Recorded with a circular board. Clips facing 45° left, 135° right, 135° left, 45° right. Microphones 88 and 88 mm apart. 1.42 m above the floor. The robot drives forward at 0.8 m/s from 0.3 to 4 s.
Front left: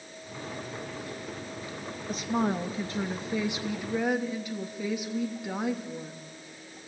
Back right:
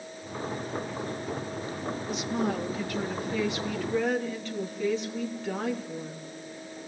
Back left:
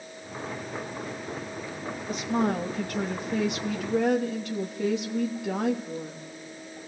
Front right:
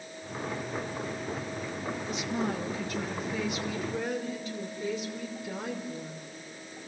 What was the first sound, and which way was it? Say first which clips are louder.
A woman speaking: front left 2 dB, back left 7 dB; 90° left.